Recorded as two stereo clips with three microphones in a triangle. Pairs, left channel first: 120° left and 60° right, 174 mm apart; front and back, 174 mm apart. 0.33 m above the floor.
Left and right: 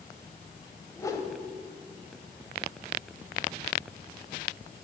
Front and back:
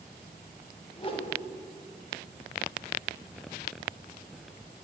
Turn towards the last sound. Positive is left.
turn(degrees=50)